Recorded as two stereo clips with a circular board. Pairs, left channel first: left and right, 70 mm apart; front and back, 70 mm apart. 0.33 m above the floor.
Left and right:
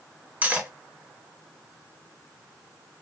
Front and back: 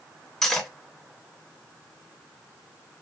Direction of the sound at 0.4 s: 75° right.